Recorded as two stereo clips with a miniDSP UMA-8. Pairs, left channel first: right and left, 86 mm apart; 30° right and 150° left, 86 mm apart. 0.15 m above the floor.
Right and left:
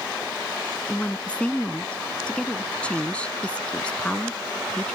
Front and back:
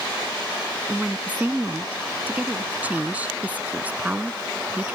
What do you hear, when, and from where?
0.9 s a woman speaking: 155° right